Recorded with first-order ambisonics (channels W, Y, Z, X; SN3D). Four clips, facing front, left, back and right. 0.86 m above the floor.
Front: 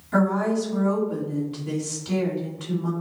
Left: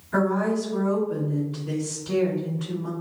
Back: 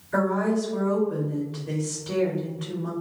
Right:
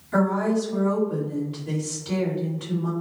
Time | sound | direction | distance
0.1 | a woman speaking | 20° right | 1.9 m